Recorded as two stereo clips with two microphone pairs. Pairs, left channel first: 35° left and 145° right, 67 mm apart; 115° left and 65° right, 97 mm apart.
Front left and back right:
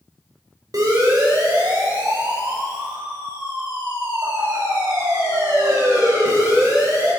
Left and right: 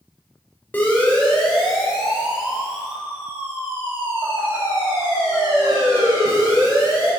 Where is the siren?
175° right, 5 m; by 7.1 s 115° right, 11.5 m.